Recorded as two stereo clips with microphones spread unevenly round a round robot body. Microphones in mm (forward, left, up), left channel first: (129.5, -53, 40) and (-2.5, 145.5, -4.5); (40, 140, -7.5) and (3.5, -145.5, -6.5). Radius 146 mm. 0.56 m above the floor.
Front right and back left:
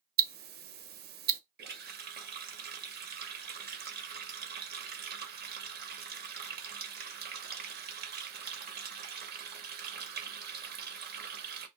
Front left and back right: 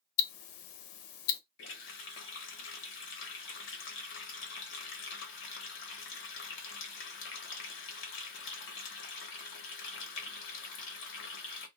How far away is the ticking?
About 0.5 m.